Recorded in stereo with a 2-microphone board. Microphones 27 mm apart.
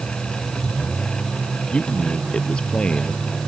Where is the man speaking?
45° left (ahead or behind).